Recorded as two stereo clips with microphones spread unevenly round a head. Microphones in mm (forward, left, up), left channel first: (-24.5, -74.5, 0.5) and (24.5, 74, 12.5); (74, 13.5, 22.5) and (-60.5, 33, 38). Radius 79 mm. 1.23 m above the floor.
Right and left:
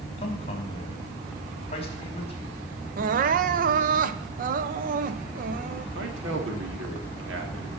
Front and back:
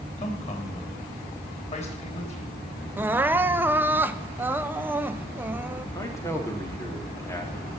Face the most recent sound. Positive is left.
turn(degrees=60)